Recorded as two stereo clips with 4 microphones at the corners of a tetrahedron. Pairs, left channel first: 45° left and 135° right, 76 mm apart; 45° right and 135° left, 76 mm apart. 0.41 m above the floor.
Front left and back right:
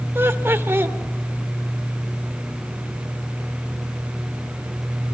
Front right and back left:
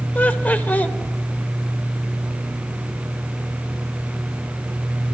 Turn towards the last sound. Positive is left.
turn(degrees=-100)